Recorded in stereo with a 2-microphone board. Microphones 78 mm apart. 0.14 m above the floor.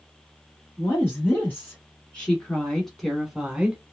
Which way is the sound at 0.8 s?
20° left (ahead or behind).